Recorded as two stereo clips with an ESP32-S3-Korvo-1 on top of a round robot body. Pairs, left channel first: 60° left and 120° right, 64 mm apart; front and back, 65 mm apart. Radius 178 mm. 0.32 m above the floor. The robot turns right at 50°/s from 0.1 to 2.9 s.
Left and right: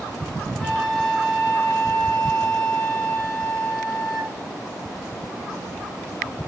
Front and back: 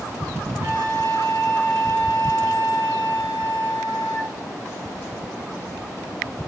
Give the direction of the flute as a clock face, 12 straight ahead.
8 o'clock.